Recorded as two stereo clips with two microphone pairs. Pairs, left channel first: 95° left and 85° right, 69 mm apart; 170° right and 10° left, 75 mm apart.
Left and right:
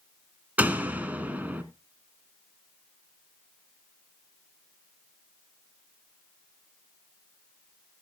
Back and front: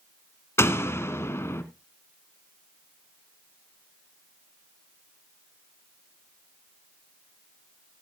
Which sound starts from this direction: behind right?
A door slam, at 0.6 s.